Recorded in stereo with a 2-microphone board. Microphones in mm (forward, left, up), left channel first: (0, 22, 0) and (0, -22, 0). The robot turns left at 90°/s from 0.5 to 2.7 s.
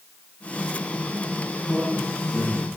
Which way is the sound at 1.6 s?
10° left.